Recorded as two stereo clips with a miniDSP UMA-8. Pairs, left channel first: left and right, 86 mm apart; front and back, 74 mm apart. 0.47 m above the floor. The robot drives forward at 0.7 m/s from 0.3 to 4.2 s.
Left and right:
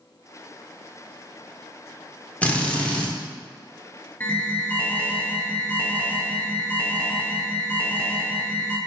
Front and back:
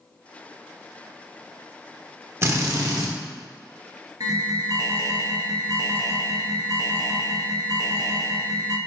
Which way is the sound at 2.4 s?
155° left.